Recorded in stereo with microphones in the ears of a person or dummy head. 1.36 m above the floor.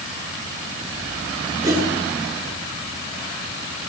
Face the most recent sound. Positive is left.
turn(degrees=-20)  # may be behind; listen again after turning